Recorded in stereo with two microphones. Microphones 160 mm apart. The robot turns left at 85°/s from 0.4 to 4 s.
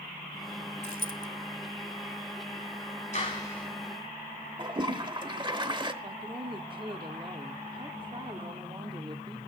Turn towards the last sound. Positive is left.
turn(degrees=-30)  # may be behind; listen again after turning